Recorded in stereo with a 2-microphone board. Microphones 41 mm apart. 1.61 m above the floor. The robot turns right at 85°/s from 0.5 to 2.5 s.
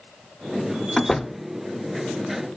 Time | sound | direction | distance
1.0 | a door slam | 15° left (ahead or behind) | 0.5 m